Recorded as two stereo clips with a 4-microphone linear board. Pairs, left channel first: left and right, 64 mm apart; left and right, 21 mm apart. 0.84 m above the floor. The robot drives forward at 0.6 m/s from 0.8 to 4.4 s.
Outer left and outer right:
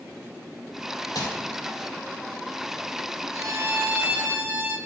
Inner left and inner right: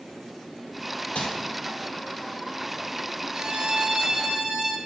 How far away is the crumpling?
About 2 m.